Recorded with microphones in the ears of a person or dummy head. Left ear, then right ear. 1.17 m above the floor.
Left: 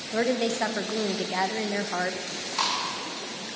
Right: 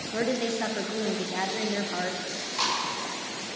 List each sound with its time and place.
0.1 s a woman speaking: 20° left (ahead or behind), 0.6 m
2.3 s chewing: 25° left (ahead or behind), 2.5 m